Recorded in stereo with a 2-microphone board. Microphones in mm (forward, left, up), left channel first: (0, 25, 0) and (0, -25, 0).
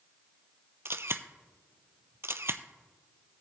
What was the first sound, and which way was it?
A camera shutter, 55° right (ahead or behind).